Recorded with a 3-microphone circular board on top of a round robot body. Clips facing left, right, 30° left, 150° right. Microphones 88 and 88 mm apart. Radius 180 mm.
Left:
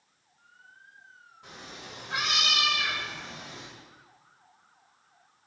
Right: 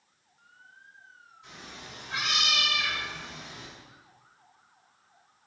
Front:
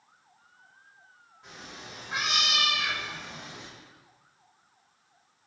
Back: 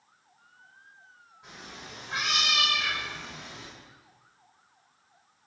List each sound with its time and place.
1.4 s a cat meowing: 125° left, 1.5 m; by 3.7 s 95° left, 2.5 m